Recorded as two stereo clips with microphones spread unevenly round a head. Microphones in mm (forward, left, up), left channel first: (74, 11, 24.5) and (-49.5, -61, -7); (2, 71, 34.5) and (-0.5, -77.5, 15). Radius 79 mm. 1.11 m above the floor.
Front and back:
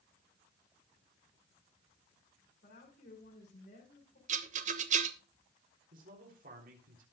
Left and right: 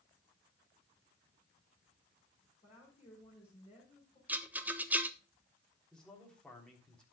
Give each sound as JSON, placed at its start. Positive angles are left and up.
{"t": 2.6, "sound": "a woman speaking", "azimuth_deg": 35, "distance_m": 5.0}
{"t": 4.3, "sound": "a rattle", "azimuth_deg": -165, "distance_m": 1.2}
{"t": 5.9, "sound": "a man speaking", "azimuth_deg": 175, "distance_m": 3.5}